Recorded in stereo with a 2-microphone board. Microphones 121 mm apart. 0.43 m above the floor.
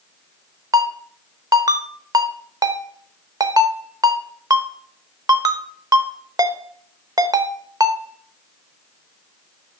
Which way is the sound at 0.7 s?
30° right (ahead or behind).